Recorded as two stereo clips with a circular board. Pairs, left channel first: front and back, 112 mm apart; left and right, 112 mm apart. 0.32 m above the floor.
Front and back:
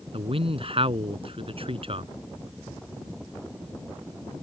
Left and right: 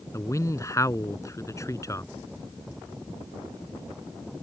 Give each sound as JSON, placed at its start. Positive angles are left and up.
{"t": 0.1, "sound": "a man speaking", "azimuth_deg": 150}